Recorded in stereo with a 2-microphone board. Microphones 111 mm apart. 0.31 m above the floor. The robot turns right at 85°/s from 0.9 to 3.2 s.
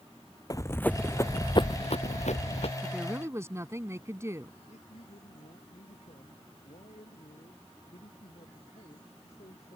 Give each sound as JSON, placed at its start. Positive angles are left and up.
{"t": 0.5, "sound": "running footsteps", "side_deg": 30}
{"t": 2.8, "sound": "a woman speaking", "azimuth_deg": 175}
{"t": 4.7, "sound": "a man speaking", "side_deg": 75}